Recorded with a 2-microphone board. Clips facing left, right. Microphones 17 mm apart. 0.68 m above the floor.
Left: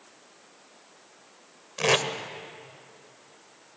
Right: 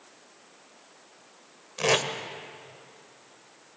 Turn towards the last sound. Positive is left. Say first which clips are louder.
# left 1 dB
turn(degrees=10)  # may be behind; listen again after turning